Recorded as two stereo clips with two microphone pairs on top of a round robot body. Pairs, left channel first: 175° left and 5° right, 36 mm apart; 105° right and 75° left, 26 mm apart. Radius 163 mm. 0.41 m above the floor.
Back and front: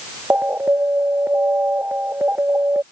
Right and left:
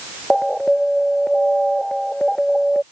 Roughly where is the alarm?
Ahead right.